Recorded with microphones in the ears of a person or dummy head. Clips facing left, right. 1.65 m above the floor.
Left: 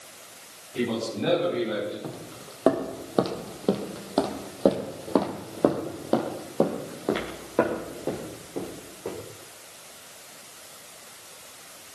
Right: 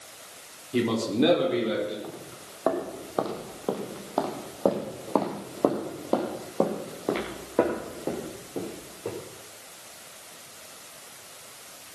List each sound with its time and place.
0.7 s a man speaking: 85° right, 4.5 m; by 1.9 s 90° right, 6 m
2.0 s footsteps: 50° left (ahead or behind), 4 m; by 9.2 s 10° right (ahead or behind), 6.5 m